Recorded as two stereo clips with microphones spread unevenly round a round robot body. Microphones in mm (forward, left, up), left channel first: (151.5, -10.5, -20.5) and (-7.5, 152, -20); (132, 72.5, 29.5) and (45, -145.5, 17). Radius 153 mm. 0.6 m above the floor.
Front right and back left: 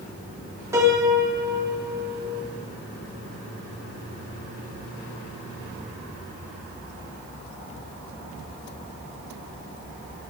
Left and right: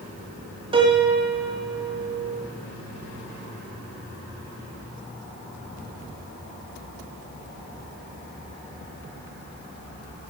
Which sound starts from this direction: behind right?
A piano, at 0.7 s.